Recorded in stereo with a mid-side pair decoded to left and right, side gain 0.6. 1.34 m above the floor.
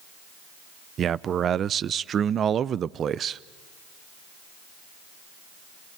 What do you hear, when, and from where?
1.0 s a man speaking: 40° right, 0.5 m